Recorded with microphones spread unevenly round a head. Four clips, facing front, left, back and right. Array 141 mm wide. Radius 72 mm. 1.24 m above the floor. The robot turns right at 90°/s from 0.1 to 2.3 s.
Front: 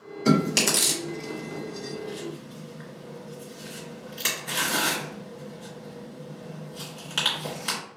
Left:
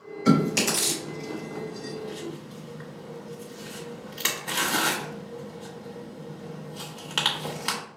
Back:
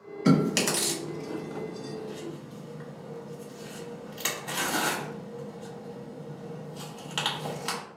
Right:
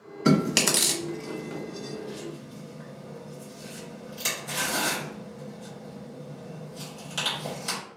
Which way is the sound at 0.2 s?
110° right.